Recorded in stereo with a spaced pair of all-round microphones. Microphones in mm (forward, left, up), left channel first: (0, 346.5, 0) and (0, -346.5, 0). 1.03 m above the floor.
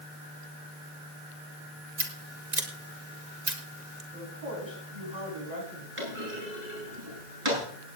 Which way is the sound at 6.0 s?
45° right (ahead or behind).